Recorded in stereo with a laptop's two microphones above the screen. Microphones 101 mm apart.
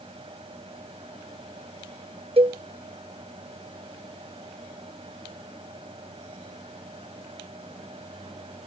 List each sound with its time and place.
0.0 s a fan: 90° right
2.4 s a cowbell: 75° right (ahead or behind)